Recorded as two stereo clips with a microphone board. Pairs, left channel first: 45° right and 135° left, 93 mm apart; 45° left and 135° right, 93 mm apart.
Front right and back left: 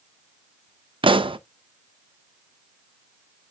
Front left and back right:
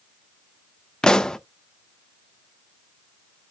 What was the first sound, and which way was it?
A pop, 125° left.